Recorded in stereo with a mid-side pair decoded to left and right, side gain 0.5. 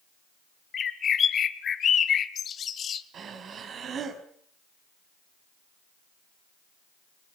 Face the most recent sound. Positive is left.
turn(degrees=-50)